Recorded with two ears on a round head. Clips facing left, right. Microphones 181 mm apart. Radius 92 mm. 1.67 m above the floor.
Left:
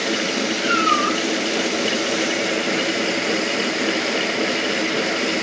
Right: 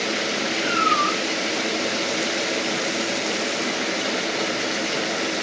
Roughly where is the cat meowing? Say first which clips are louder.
Left 3 dB; centre.